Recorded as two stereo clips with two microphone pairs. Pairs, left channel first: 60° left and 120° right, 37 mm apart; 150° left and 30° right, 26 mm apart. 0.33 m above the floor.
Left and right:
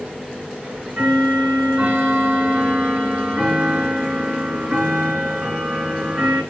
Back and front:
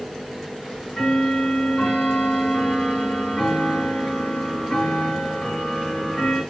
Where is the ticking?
160° right, 4 m.